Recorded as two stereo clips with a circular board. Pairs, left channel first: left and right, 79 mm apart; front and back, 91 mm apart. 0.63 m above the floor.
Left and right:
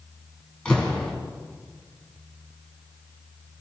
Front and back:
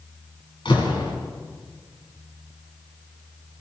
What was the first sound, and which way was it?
A door slam, 10° left.